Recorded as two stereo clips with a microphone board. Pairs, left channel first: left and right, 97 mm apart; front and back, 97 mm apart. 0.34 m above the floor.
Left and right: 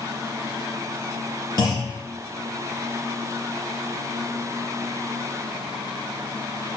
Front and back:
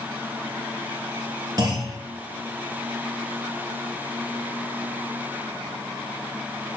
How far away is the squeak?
I don't hear a squeak.